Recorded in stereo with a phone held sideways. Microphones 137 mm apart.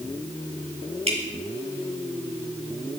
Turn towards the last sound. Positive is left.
turn(degrees=-50)  # may be behind; listen again after turning